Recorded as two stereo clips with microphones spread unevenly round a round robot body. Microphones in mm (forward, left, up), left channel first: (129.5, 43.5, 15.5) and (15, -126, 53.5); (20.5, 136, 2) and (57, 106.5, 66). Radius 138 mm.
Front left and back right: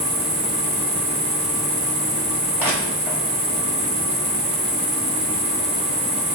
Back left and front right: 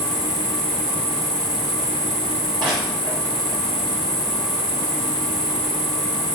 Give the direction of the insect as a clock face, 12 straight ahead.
4 o'clock.